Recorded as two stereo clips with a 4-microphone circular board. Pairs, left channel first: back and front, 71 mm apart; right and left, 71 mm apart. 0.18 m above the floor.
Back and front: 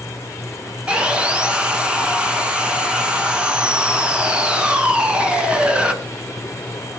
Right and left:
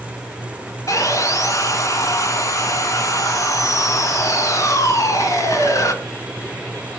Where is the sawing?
75° right, 1.8 m.